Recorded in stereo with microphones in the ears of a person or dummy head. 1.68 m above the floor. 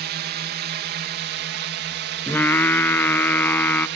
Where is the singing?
10° left (ahead or behind).